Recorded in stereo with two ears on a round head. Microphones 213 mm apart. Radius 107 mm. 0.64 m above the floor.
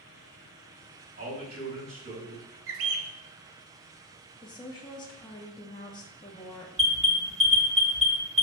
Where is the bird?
60° right (ahead or behind), 0.5 m.